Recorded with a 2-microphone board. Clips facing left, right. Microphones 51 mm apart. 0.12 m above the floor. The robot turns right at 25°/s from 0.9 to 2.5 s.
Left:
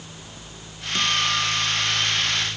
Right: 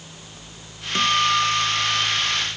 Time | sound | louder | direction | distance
0.9 | a guitar | right 4 dB | 120° right | ?